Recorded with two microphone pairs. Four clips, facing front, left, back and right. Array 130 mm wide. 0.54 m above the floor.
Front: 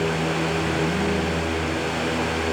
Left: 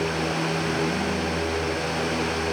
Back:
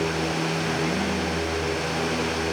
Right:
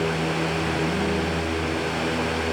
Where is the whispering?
I don't hear whispering.